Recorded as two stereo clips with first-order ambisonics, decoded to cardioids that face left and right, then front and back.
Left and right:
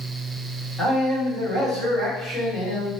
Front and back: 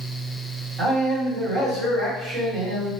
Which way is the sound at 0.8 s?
145° left.